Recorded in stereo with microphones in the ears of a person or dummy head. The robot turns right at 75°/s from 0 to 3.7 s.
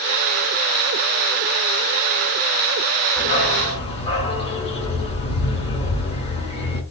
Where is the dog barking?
115° left, 2.5 m; by 6.8 s 155° left, 2.5 m.